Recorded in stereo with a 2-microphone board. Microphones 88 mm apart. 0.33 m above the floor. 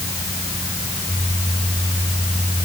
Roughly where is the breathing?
I don't hear breathing.